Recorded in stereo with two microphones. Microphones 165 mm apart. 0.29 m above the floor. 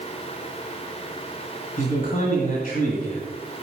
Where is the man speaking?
55° left (ahead or behind), 1.6 m.